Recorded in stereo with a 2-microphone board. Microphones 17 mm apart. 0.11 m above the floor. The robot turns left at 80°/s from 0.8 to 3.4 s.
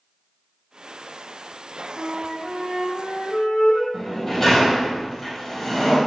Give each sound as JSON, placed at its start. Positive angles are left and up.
{"t": 2.0, "sound": "a flute", "azimuth_deg": -120, "distance_m": 2.0}
{"t": 3.9, "sound": "a sliding door", "side_deg": 20, "distance_m": 3.0}